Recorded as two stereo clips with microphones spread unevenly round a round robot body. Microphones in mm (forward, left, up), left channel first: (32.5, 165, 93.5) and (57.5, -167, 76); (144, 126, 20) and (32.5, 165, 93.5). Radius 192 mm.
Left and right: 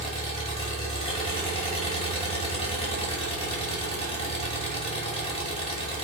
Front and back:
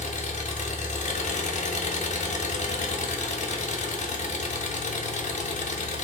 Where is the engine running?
25° left, 0.8 m.